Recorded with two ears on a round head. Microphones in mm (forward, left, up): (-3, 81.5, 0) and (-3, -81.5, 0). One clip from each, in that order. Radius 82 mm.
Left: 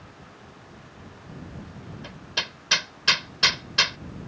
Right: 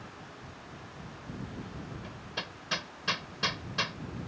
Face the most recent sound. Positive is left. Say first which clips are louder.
# left 11 dB
turn(degrees=65)  # may be behind; listen again after turning